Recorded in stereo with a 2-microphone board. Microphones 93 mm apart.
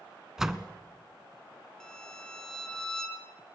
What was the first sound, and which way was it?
A door slam, 5° right (ahead or behind).